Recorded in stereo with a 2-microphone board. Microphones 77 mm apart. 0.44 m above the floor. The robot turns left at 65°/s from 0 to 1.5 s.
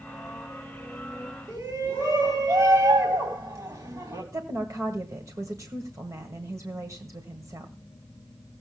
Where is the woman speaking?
45° right (ahead or behind), 1.8 m.